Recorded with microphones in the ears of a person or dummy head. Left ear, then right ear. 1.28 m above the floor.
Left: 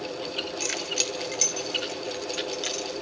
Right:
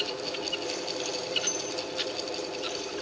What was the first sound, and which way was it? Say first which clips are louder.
Keys jangling: left 4 dB; 65° left (ahead or behind).